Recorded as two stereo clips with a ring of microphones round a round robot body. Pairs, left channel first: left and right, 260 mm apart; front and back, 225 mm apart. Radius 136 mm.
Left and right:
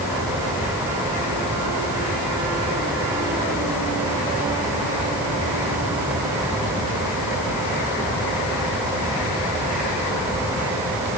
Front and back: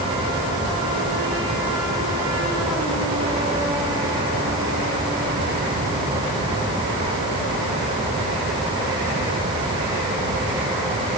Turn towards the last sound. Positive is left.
No sound to turn to.